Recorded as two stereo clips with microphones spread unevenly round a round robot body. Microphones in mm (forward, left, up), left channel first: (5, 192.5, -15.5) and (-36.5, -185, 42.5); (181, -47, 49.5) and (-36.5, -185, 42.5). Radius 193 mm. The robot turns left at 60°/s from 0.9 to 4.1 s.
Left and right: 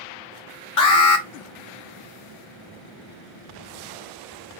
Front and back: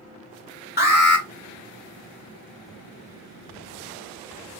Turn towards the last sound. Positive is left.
turn(degrees=-115)